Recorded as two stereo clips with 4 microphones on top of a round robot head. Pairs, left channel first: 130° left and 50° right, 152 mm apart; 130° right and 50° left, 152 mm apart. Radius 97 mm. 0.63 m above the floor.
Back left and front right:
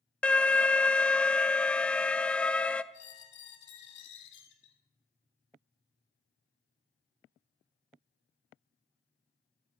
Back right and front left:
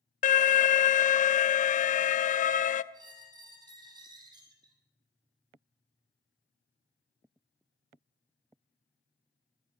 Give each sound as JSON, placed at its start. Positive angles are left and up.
{"t": 0.2, "sound": "an alarm", "azimuth_deg": -150, "distance_m": 0.5}
{"t": 2.9, "sound": "a squeak", "azimuth_deg": 120, "distance_m": 2.5}